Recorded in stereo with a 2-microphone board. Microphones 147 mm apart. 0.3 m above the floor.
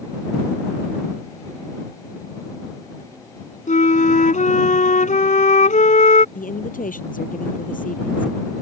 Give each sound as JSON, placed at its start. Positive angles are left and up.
{"t": 3.7, "sound": "a flute", "side_deg": 65}
{"t": 6.3, "sound": "a woman speaking", "side_deg": 75}